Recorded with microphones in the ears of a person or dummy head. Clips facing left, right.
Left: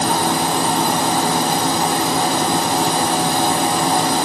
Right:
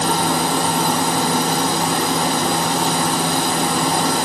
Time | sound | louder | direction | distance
0.0 | a machine running | left 1 dB | 30° left (ahead or behind) | 1.7 m